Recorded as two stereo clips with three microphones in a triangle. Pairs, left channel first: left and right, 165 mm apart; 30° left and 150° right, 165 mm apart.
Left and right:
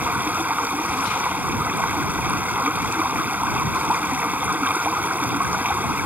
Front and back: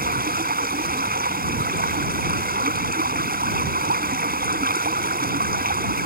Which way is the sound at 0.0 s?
170° right.